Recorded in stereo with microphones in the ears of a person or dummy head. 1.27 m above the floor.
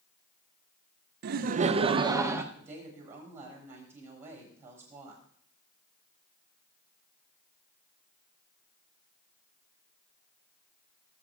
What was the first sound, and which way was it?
Laughter, 65° right (ahead or behind).